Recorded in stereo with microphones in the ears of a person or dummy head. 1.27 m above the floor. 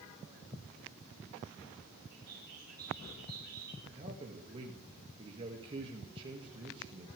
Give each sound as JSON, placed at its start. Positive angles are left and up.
{"t": 2.1, "sound": "a bird", "side_deg": -50, "distance_m": 4.0}
{"t": 3.9, "sound": "a man speaking", "side_deg": -30, "distance_m": 2.0}